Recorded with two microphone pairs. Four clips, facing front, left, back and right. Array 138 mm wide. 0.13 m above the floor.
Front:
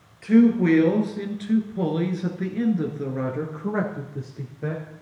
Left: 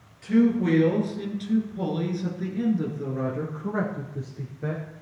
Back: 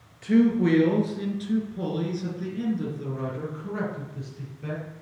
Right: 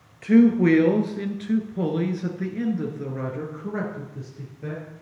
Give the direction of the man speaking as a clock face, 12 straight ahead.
3 o'clock.